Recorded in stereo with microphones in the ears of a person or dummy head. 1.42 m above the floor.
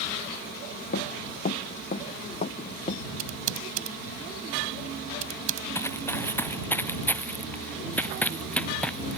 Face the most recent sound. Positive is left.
turn(degrees=5)  # may be behind; listen again after turning